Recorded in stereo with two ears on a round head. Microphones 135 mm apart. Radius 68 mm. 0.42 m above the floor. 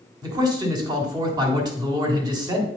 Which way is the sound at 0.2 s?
25° right (ahead or behind).